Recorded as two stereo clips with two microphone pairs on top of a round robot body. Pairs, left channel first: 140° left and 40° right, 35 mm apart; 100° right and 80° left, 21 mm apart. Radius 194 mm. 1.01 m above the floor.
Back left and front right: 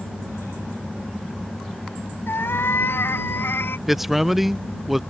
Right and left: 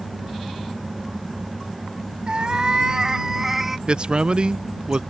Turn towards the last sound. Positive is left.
turn(degrees=50)